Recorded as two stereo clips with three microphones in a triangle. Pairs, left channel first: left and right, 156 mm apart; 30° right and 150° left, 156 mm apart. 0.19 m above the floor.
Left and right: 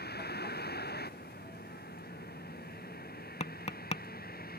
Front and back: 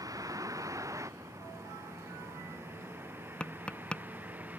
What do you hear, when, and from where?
0.0 s a vehicle: 80° left; by 4.6 s 70° left
3.4 s tapping: 50° left